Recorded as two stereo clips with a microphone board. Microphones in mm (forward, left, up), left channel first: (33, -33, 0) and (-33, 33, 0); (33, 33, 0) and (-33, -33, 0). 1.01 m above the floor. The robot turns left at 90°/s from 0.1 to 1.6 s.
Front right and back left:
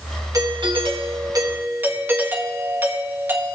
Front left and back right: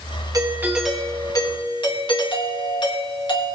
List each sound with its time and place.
0.3 s a doorbell: straight behind, 1.7 m; by 3.6 s 70° left, 1.7 m